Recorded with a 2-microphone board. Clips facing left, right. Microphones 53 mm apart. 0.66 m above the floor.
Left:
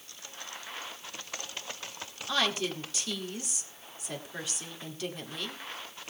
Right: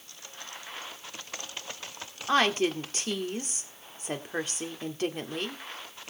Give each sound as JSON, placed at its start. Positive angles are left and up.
{"t": 2.3, "sound": "a woman speaking", "side_deg": -40, "distance_m": 2.0}